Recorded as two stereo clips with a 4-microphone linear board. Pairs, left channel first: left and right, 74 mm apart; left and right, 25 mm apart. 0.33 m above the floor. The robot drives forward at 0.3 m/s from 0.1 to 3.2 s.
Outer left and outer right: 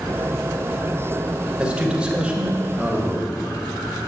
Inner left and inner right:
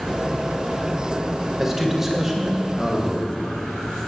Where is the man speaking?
15° right (ahead or behind), 1.4 m; by 3.4 s 10° right (ahead or behind), 1.6 m.